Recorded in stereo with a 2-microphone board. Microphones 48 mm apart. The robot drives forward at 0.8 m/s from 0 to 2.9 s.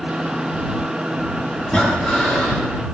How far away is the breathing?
About 4 m.